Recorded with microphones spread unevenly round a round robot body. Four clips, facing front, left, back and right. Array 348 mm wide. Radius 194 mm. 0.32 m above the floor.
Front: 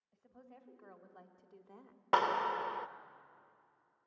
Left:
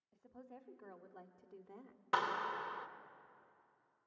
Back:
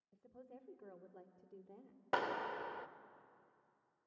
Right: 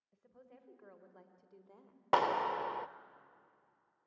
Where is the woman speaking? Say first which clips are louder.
Left 4 dB, back 1 dB; 150° left, 2.5 m; by 2.0 s 120° left, 1.4 m.